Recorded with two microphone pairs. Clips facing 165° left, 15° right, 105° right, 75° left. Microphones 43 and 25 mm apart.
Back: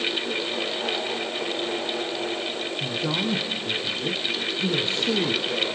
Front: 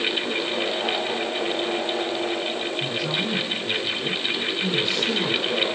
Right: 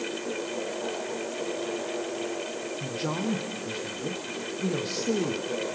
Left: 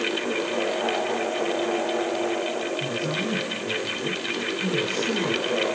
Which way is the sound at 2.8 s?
140° right.